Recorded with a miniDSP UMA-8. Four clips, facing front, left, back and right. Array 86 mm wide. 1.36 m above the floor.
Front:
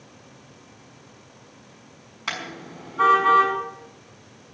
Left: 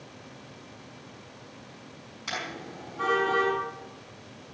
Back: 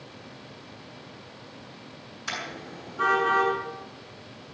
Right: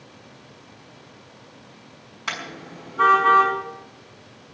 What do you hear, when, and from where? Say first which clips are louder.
2.3 s a car horn: right 3 dB, front 2 dB; 30° right, 6 m